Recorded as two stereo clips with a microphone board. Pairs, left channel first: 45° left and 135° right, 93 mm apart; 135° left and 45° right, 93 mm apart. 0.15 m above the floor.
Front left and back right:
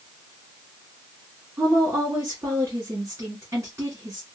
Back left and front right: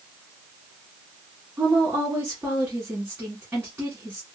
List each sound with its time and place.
1.6 s a woman speaking: 105° right, 1.4 m